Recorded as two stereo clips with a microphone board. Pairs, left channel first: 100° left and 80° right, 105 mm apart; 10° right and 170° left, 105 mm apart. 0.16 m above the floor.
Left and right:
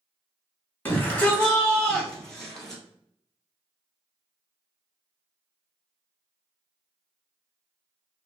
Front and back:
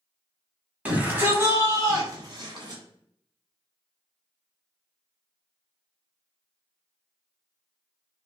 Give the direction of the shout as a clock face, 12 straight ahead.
8 o'clock.